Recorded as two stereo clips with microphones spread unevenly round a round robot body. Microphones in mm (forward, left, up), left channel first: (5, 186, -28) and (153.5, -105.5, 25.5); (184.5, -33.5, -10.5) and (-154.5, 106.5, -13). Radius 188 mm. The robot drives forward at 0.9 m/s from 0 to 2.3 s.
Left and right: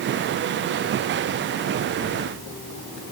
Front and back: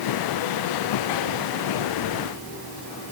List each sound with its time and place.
Only background noise.